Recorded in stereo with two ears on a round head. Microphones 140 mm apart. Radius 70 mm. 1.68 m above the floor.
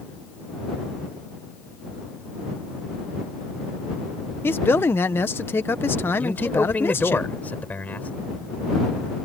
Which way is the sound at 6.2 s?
10° left (ahead or behind).